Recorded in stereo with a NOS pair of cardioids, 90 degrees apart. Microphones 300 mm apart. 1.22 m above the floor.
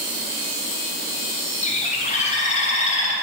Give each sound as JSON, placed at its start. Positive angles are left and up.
{"t": 1.6, "sound": "a bird", "azimuth_deg": 25, "distance_m": 0.6}